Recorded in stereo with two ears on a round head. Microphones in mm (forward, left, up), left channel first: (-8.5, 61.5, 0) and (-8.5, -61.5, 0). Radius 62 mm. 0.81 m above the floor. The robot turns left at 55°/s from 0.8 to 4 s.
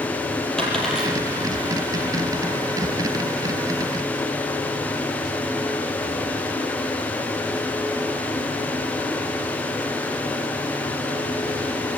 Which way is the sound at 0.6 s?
5° left (ahead or behind).